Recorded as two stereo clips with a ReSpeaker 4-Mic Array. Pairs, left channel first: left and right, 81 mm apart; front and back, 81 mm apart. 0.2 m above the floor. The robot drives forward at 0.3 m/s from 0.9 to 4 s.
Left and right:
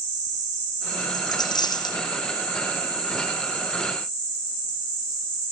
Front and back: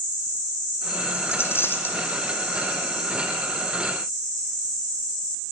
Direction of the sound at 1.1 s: 60° left.